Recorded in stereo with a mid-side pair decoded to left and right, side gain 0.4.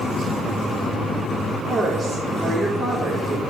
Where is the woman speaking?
40° right, 4 m.